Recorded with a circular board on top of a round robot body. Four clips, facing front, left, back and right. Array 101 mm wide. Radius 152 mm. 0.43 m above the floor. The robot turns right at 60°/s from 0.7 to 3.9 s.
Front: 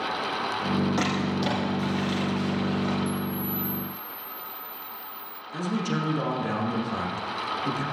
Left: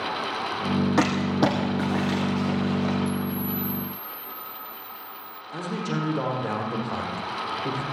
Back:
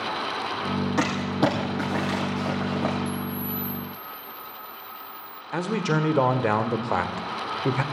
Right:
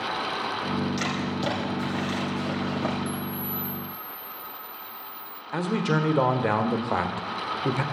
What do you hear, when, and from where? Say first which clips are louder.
1.0 s crumpling: left 7 dB, back 3 dB; 90° left, 5 m; by 3.0 s 155° right, 5 m
3.1 s a camera shutter: left 4 dB, front 1 dB; 60° right, 0.6 m; by 5.4 s 10° right, 0.6 m
5.5 s a man speaking: right 4 dB, back 3 dB; 145° right, 1.7 m